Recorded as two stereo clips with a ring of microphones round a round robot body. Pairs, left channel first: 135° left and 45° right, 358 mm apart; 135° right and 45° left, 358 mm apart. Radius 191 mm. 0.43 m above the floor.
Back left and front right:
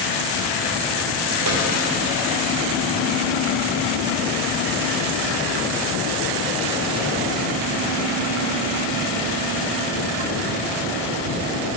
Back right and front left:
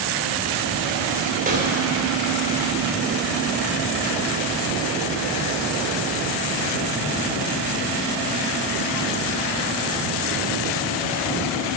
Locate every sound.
1.5 s a snare drum: 15° right, 2.0 m